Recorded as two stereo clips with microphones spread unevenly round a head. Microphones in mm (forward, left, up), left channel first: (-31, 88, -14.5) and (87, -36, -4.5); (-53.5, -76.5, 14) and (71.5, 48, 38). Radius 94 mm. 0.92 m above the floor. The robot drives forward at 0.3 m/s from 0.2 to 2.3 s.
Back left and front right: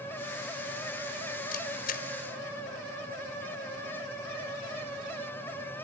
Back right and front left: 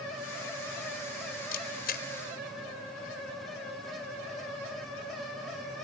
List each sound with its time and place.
1.5 s a camera shutter: straight behind